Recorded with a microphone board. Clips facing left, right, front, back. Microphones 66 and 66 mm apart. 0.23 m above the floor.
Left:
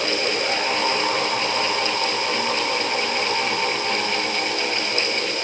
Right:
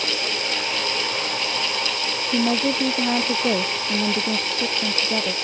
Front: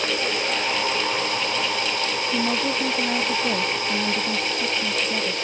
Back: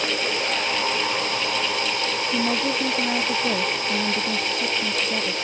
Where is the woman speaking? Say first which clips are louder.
Right 2 dB, even; 95° right.